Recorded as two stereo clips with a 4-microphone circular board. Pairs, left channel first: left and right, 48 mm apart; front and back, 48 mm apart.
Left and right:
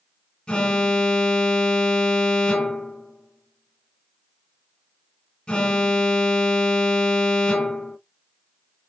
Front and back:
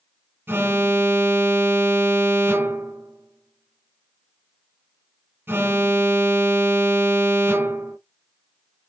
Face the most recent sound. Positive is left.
turn(degrees=155)